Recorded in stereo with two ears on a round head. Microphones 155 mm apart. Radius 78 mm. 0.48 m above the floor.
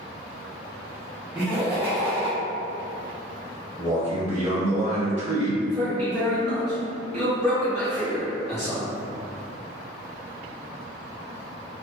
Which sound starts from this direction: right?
A man speaking, at 3.8 s.